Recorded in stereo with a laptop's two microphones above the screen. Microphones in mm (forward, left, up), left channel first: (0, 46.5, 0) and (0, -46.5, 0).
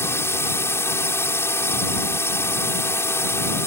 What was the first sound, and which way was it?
A drone, 25° left (ahead or behind).